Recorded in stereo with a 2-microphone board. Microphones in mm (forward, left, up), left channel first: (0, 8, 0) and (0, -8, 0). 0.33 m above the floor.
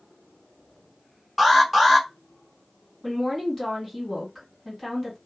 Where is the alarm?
Centre (ahead or behind), 1.0 m.